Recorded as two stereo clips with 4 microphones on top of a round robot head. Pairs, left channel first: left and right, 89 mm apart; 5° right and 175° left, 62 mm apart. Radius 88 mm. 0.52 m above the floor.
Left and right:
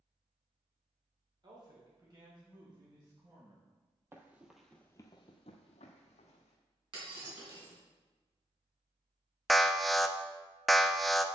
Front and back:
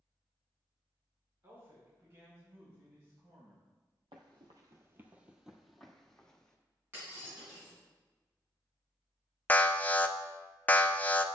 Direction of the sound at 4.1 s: 150° right.